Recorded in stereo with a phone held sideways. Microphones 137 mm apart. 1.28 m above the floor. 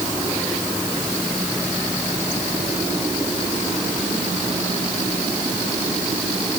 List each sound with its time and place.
Only background noise.